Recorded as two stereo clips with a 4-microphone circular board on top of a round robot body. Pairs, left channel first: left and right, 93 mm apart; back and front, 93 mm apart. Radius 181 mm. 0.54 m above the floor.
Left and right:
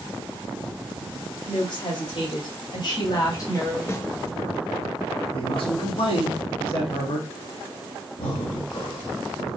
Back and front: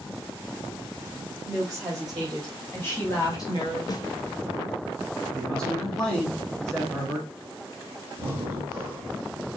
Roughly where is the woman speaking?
Left.